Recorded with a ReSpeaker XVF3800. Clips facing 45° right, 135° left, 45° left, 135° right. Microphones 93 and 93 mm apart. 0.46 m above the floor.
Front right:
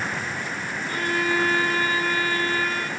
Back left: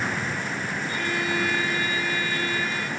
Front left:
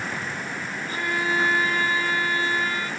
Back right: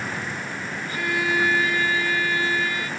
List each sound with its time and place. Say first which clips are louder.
0.9 s a violin: front right 5 dB, back right 1 dB; 10° right, 3 m